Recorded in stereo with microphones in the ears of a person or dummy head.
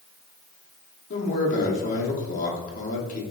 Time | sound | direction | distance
1.1 | a man speaking | 40° left (ahead or behind) | 1.4 m